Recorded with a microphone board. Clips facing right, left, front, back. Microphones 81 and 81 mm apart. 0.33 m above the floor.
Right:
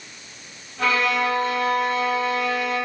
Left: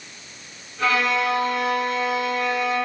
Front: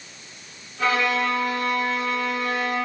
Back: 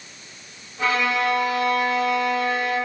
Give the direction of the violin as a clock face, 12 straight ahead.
4 o'clock.